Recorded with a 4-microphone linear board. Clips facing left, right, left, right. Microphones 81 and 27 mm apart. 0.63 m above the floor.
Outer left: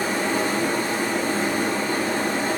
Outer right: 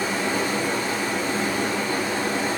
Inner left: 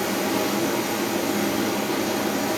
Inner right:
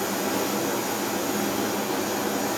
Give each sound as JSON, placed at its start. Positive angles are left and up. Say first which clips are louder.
{"t": 0.0, "sound": "running water", "louder": "outer left 1 dB, inner left 3 dB", "side_deg": 40, "distance_m": 1.2}